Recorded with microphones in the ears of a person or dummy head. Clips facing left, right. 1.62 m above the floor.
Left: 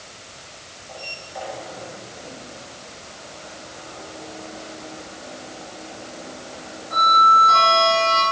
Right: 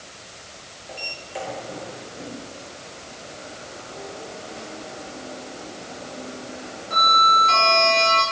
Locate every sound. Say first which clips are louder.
0.9 s a sliding door: right 2 dB; 45° right (ahead or behind), 8 m